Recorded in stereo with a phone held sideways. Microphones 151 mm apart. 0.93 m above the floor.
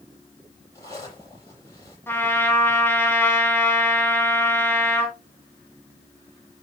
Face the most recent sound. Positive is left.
turn(degrees=15)  # may be behind; listen again after turning